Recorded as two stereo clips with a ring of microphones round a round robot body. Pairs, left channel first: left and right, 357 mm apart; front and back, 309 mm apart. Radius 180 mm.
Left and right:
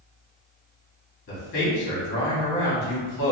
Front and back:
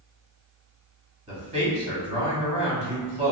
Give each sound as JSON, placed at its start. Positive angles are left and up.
{"t": 1.3, "sound": "a man speaking", "azimuth_deg": 125, "distance_m": 1.4}